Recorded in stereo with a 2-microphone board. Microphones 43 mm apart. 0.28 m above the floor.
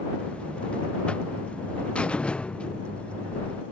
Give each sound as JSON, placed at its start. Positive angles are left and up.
{"t": 0.2, "sound": "a buzzer", "side_deg": 25}